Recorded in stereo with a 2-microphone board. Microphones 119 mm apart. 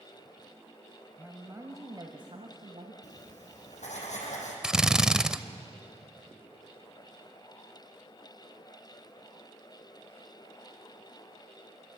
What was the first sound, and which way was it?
A woman speaking, 15° right (ahead or behind).